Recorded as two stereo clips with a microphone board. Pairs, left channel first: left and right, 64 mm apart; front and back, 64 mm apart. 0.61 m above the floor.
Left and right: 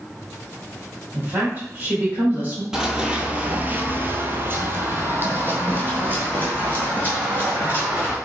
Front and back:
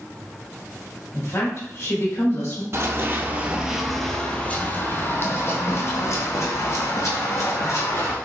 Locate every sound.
1.1 s a woman speaking: 35° right, 1.6 m
2.7 s running footsteps: 165° right, 0.8 m; by 8.2 s 30° right, 2.5 m